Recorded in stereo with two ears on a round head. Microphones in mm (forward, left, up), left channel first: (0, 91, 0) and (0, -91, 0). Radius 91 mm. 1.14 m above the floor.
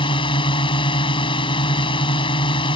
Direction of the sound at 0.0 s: 25° left (ahead or behind).